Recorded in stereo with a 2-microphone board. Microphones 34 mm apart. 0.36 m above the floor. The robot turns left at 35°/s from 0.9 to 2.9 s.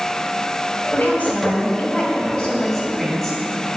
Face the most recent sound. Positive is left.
turn(degrees=15)